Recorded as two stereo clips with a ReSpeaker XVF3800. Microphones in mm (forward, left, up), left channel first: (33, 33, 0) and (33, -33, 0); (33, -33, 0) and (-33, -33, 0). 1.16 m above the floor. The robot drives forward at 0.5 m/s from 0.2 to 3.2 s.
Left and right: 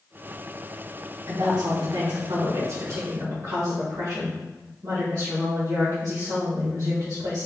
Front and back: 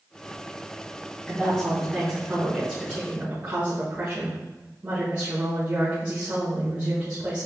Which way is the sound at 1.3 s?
75° right.